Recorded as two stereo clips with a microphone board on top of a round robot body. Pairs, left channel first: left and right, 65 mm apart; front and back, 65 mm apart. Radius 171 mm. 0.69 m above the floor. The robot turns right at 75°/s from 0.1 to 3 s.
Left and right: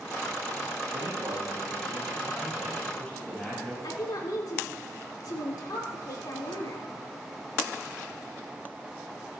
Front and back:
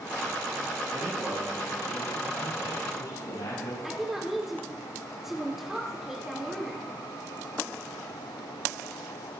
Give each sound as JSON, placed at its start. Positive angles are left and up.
{"t": 0.9, "sound": "a man speaking", "azimuth_deg": -140, "distance_m": 7.0}
{"t": 3.8, "sound": "a woman speaking", "azimuth_deg": 95, "distance_m": 3.5}